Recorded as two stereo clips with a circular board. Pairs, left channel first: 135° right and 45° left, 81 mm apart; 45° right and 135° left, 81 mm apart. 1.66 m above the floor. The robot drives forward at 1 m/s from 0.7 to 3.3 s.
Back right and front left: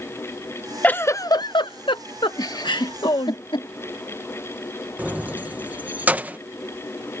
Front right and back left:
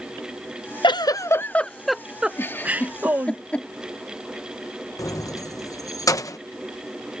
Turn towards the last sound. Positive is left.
turn(degrees=-20)